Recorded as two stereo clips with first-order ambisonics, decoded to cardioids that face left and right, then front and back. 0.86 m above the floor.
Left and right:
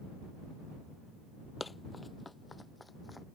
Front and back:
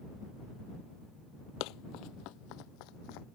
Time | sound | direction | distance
1.6 | running footsteps | 10° left | ?